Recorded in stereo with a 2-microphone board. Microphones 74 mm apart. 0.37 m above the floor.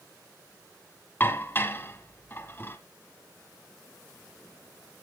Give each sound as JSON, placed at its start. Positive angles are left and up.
{"t": 1.2, "sound": "dishes clattering", "side_deg": 30, "distance_m": 1.8}